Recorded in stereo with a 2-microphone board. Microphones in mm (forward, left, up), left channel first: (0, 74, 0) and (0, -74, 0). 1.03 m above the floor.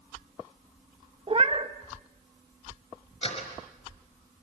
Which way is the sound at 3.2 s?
40° left (ahead or behind).